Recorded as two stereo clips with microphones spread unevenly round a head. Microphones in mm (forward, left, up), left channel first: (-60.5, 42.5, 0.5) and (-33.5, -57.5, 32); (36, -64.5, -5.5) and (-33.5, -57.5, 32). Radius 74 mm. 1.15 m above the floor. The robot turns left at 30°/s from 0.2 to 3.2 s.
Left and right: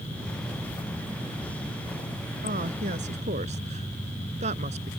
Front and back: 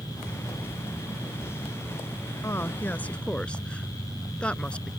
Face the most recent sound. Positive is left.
turn(degrees=-85)